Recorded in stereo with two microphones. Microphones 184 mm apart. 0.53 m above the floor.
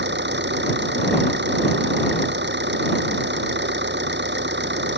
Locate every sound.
0.0 s an engine running: 75° right (ahead or behind)